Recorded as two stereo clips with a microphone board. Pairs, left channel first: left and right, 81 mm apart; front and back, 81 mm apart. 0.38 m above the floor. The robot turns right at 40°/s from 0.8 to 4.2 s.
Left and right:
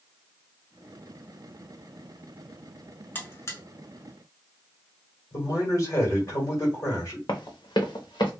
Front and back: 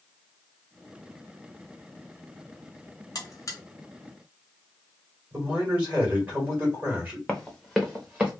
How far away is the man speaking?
About 1.9 m.